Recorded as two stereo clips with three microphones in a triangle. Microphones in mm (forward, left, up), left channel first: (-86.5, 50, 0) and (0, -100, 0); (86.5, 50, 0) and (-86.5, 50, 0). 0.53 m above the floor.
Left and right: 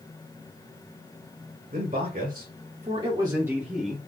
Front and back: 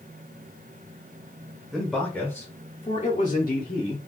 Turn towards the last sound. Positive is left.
turn(degrees=30)